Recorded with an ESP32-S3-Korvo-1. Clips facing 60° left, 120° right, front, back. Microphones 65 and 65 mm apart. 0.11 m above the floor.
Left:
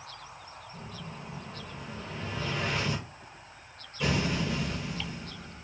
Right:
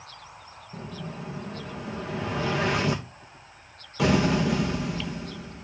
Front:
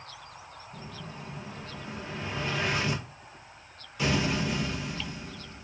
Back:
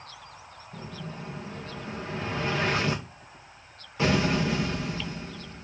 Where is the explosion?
120° right, 1.8 m.